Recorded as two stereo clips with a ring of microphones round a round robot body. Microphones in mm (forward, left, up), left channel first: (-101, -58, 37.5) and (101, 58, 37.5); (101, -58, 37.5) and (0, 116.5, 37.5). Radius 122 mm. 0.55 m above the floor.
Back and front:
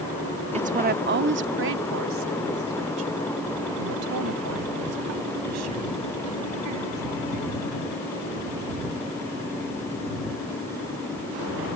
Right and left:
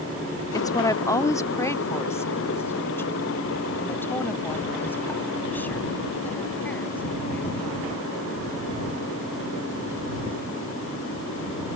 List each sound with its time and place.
0.5 s a woman speaking: straight ahead; by 7.9 s 20° left